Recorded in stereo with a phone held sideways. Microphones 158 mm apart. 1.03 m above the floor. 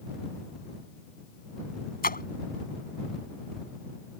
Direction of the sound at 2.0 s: 80° left.